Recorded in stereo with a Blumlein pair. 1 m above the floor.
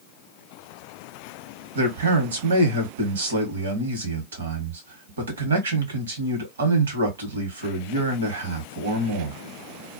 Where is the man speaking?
65° right, 1.1 m.